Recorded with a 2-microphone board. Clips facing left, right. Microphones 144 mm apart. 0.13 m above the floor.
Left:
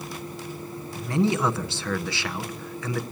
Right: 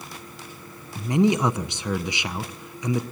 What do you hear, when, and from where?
0.9 s a man speaking: 20° right (ahead or behind), 1.1 m